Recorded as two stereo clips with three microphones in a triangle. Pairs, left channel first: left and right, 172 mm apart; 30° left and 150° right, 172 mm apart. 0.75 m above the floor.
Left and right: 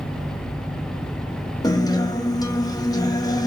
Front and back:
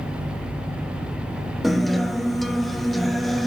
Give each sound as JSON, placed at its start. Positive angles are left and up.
{"t": 1.6, "sound": "a guitar", "azimuth_deg": 120, "distance_m": 0.8}